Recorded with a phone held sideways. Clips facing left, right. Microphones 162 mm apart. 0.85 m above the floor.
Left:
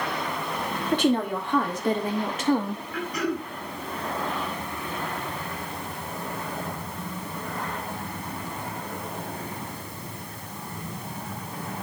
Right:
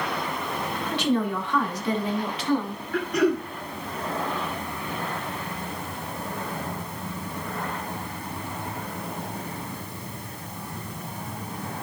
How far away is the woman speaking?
About 2 m.